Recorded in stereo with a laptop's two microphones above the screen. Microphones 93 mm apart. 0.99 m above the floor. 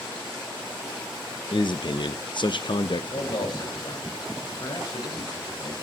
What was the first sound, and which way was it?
A man speaking, 55° left (ahead or behind).